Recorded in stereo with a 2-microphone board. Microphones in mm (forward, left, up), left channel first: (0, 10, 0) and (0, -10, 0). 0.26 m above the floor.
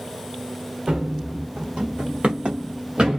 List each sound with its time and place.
0.9 s running footsteps: 55° right (ahead or behind), 1.1 m; by 3.2 s 50° right (ahead or behind), 1.2 m